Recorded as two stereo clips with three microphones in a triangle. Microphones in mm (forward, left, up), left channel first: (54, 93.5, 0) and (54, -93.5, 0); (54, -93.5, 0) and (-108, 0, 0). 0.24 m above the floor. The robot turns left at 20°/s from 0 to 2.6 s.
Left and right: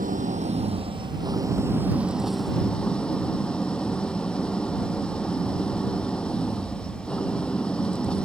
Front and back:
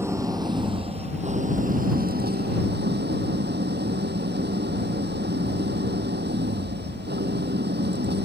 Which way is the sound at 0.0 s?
135° right.